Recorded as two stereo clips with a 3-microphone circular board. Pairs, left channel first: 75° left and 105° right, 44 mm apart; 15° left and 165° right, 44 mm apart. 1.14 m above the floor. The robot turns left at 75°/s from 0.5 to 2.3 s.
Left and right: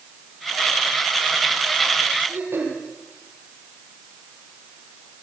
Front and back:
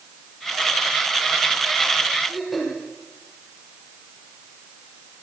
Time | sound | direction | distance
2.3 | throat clearing | 75° right | 6.5 m